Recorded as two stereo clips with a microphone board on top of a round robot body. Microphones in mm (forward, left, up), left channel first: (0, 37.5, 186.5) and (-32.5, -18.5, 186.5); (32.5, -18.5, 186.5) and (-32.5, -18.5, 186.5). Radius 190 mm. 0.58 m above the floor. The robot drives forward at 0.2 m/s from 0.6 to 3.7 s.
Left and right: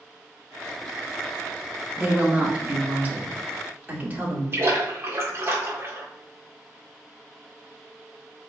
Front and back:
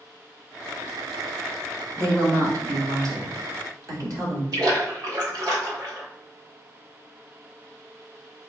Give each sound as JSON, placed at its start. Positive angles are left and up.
{"t": 2.0, "sound": "a woman speaking", "azimuth_deg": 175, "distance_m": 1.6}
{"t": 4.5, "sound": "a splash", "azimuth_deg": -170, "distance_m": 1.5}